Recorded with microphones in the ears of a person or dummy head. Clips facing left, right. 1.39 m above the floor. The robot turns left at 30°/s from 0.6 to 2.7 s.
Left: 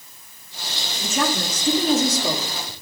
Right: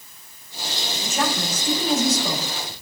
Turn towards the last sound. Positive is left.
turn(degrees=55)